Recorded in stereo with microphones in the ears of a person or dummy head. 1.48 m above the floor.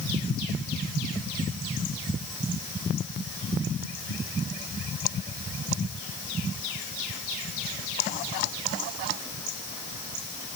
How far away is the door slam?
No door slam in this recording.